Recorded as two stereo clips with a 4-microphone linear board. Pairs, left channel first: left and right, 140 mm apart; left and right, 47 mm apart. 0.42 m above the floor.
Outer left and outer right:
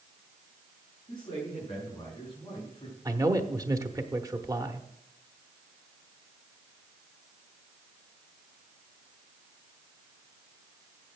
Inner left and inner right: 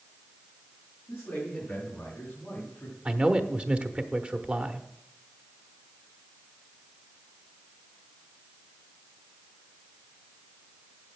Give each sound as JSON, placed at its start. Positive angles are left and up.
{"t": 1.1, "sound": "a man speaking", "side_deg": 25, "distance_m": 5.5}
{"t": 3.0, "sound": "a man speaking", "side_deg": -25, "distance_m": 0.9}